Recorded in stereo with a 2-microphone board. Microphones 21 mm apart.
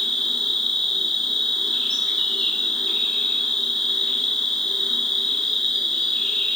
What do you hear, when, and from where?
0.0 s an insect: 55° left (ahead or behind), 0.8 m